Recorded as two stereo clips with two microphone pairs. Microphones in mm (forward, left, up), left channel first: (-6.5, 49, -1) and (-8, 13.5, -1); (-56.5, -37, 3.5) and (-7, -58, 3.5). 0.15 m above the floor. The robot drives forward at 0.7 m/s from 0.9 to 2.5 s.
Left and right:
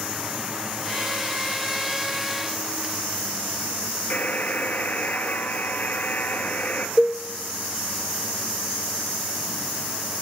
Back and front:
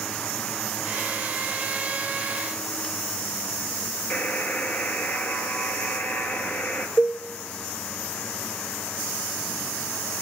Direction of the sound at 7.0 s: Straight behind.